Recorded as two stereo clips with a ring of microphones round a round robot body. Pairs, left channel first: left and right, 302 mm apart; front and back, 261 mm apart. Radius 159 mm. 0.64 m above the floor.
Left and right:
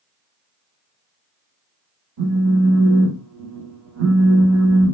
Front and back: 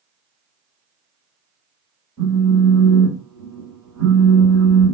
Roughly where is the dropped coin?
No dropped coin in this recording.